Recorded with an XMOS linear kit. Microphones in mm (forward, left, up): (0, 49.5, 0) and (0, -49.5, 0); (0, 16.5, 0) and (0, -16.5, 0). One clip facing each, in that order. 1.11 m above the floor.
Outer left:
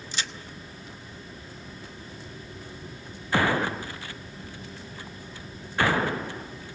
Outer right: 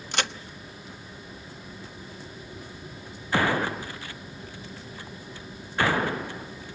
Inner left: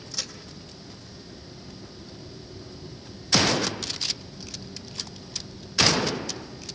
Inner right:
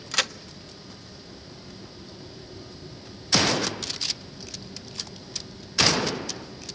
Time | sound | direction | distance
0.1 | a crack | 60° right (ahead or behind) | 0.9 m